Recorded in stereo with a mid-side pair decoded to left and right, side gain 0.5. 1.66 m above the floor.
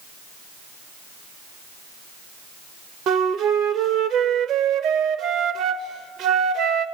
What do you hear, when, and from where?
3.1 s a flute: 65° right, 0.7 m